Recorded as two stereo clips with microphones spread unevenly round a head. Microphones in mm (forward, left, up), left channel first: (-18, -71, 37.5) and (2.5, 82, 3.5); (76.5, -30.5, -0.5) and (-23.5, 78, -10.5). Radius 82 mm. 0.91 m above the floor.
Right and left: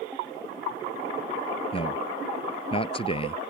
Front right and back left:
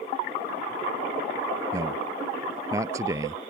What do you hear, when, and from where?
1.7 s a man speaking: 155° right